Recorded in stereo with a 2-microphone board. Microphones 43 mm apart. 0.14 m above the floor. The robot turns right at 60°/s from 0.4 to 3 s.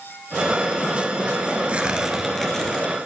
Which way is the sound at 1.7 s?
40° right.